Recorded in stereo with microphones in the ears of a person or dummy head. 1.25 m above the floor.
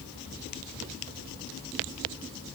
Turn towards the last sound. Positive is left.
No sound to turn to.